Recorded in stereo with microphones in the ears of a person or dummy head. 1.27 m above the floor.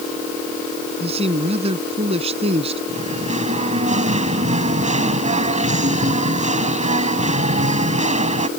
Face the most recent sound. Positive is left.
turn(degrees=-40)  # may be behind; listen again after turning